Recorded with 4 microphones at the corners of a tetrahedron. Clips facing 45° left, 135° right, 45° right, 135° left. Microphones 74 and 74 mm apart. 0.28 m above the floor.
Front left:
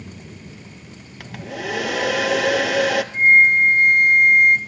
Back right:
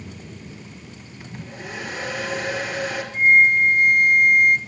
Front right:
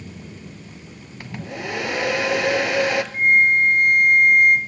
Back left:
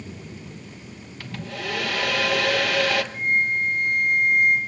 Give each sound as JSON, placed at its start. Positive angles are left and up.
{"t": 1.2, "sound": "a hair dryer", "azimuth_deg": 30, "distance_m": 1.2}
{"t": 3.1, "sound": "a flute", "azimuth_deg": -10, "distance_m": 1.9}